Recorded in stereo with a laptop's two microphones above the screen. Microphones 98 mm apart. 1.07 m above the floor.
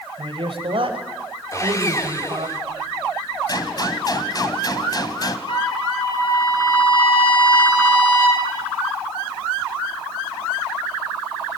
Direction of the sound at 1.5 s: 30° left (ahead or behind).